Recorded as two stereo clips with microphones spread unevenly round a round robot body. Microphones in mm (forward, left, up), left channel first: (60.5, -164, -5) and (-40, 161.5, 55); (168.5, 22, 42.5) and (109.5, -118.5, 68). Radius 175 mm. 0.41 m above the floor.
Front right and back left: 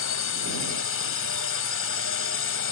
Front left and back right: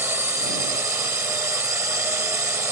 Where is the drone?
40° right.